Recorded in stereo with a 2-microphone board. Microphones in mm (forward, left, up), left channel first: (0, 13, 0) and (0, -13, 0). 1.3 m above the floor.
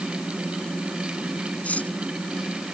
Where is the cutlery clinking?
75° left (ahead or behind).